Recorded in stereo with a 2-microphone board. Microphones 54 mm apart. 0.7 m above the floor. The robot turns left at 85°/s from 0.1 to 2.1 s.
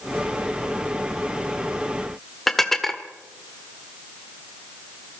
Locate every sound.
2.5 s dishes clattering: 5° left (ahead or behind), 1.6 m